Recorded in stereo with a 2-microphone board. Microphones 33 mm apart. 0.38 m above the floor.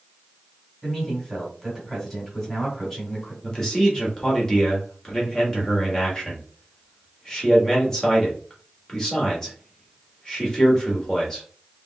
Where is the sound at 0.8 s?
5° left (ahead or behind), 2 m.